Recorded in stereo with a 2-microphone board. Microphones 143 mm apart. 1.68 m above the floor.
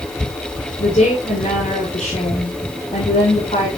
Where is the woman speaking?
45° left (ahead or behind), 7 m.